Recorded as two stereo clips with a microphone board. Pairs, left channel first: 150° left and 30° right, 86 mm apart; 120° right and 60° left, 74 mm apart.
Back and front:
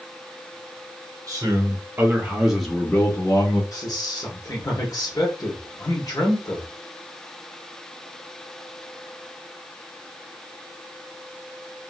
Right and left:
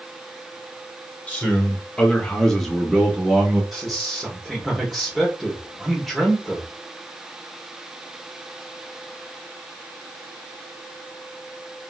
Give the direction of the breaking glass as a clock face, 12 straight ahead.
No breaking glass in this recording.